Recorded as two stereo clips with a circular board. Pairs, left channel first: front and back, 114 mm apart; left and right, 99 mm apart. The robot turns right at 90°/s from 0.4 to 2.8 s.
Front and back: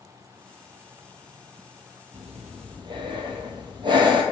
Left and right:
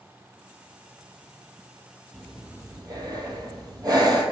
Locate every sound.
2.1 s breathing: 165° left, 0.7 m; by 4.2 s 135° right, 0.7 m